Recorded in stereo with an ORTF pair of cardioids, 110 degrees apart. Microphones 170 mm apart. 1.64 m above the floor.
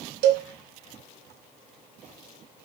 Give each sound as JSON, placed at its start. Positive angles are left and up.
{"t": 0.2, "sound": "a cowbell", "azimuth_deg": -70, "distance_m": 0.7}